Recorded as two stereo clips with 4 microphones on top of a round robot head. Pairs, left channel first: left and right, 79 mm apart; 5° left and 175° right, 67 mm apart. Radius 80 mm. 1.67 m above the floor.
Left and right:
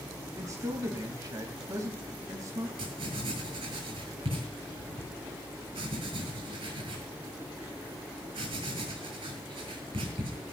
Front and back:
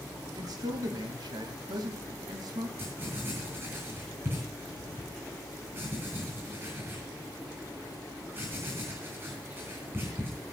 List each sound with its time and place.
0.4 s a man speaking: 145° right, 3 m
2.8 s writing: 110° right, 7 m